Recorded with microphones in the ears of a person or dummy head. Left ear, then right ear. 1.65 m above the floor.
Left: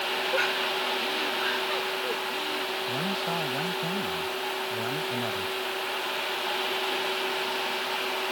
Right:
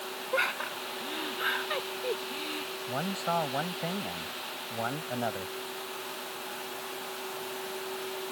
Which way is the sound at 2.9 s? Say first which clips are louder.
Left 3 dB; 40° right (ahead or behind).